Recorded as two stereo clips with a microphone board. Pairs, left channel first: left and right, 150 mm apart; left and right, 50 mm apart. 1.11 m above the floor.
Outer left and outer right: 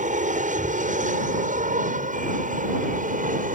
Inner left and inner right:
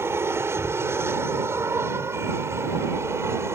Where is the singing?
No singing in this recording.